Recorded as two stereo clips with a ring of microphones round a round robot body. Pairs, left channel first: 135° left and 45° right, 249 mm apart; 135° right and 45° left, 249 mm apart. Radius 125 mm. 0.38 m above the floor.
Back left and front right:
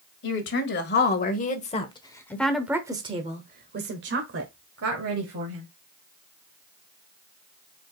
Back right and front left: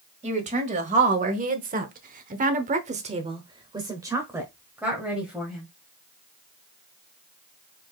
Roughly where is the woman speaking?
Left.